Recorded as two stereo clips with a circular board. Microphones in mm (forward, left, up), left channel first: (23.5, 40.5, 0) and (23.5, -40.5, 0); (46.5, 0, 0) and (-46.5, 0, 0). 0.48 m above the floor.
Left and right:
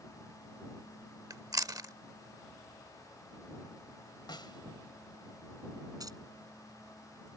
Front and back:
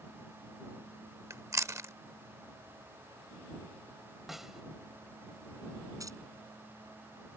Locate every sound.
1.3 s chewing: 125° right
4.3 s a snare drum: 95° left
6.0 s keys jangling: 130° right